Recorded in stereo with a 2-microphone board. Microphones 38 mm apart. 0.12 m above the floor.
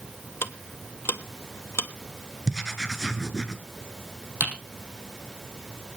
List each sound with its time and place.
0.4 s ticking: 70° left (ahead or behind), 0.9 m
2.5 s writing: 10° right (ahead or behind), 1.4 m
4.4 s typing on a keyboard: 70° right (ahead or behind), 4 m